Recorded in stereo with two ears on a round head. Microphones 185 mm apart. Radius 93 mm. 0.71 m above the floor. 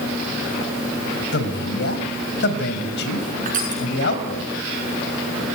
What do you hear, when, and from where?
1.3 s a man speaking: 60° left (ahead or behind), 4 m
3.5 s crushing: 40° right (ahead or behind), 7 m